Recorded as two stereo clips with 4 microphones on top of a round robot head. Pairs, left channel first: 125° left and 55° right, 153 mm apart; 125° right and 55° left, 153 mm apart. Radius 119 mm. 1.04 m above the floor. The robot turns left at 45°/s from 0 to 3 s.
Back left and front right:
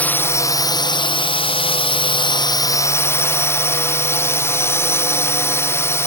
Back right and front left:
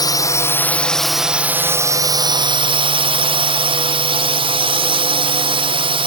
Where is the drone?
165° right; by 6.1 s 60° left.